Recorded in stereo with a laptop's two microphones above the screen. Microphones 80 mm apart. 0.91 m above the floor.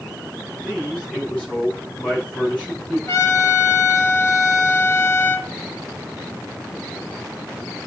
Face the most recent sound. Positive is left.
turn(degrees=35)  # may be behind; listen again after turning